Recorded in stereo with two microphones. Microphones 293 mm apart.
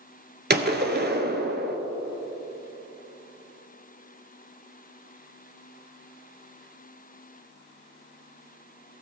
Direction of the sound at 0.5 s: 35° right (ahead or behind).